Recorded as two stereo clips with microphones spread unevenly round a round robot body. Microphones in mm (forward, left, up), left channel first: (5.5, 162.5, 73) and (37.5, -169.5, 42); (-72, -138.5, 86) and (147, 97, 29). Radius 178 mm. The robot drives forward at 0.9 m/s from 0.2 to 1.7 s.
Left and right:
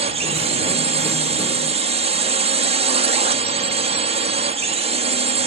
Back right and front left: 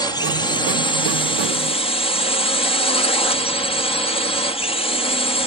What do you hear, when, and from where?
0.0 s a drone: 50° right; by 5.5 s 60° right